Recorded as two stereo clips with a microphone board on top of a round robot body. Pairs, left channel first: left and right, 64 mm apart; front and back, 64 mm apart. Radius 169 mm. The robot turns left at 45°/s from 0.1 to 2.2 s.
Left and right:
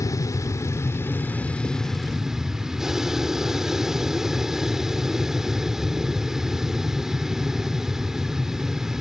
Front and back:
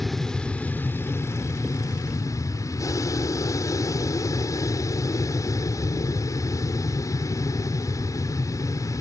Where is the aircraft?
85° left; by 9.0 s 10° right.